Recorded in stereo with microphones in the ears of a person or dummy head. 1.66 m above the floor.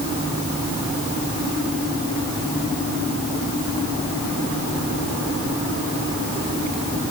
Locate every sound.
Only background noise.